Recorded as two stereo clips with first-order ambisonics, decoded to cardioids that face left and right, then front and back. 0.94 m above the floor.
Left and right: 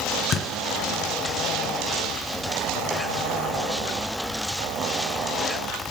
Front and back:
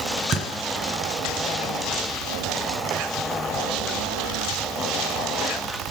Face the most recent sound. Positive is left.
turn(degrees=125)